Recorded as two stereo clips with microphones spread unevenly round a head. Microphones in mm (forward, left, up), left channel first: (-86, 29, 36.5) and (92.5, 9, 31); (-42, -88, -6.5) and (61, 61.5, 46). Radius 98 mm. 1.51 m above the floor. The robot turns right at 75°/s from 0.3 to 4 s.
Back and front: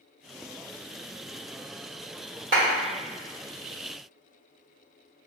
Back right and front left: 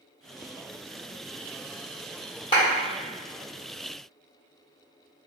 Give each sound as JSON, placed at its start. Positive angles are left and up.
{"t": 2.5, "sound": "a clap", "azimuth_deg": -60, "distance_m": 1.4}